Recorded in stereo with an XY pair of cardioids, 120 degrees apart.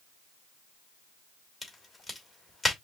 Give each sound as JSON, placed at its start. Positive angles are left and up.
{"t": 1.6, "sound": "a crack", "azimuth_deg": 10, "distance_m": 2.5}